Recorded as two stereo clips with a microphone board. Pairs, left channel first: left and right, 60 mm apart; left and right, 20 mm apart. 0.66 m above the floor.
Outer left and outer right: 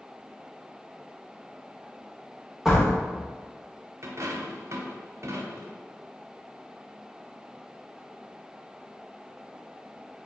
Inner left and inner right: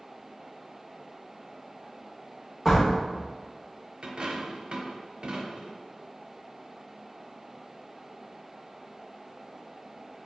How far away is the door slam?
About 1.6 m.